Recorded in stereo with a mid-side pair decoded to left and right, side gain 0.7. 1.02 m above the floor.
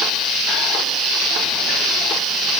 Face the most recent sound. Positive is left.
No sound to turn to.